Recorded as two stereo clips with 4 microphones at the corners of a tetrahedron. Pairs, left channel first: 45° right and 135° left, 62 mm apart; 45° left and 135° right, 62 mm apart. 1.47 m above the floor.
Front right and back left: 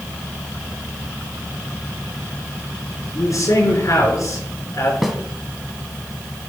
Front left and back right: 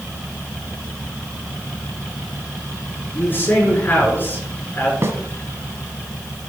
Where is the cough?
No cough in this recording.